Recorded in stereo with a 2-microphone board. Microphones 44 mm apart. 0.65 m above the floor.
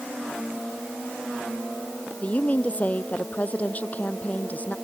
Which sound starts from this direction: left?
A woman speaking, at 2.2 s.